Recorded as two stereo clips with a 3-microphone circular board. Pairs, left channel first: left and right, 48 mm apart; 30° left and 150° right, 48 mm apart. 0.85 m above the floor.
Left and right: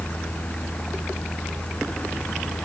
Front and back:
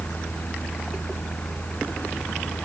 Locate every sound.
Only background noise.